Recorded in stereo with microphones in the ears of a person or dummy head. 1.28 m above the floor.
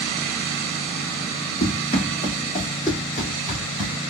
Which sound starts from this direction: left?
Running footsteps, at 1.6 s.